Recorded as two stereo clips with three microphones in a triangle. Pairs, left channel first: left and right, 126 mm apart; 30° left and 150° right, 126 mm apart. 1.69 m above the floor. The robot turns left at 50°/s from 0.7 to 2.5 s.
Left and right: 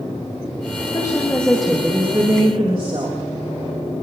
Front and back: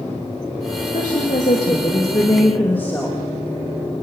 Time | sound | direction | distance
0.9 | a woman speaking | 35° left | 3.5 m